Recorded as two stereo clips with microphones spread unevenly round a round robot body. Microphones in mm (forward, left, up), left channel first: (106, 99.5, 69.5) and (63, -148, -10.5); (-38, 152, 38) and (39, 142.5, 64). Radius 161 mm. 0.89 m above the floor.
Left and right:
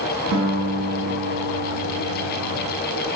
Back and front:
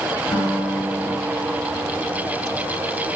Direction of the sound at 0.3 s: 130° right.